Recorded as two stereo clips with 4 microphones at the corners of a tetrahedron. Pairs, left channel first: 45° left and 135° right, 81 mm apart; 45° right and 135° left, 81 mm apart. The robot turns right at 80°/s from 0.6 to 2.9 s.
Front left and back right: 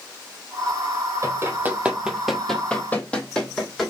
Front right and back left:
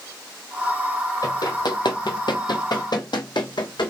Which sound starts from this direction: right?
Running footsteps, at 1.2 s.